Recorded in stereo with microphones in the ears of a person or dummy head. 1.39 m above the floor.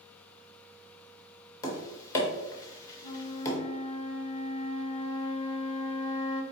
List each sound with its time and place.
1.6 s tapping: 20° left (ahead or behind), 0.8 m
3.0 s a flute: 30° left (ahead or behind), 0.7 m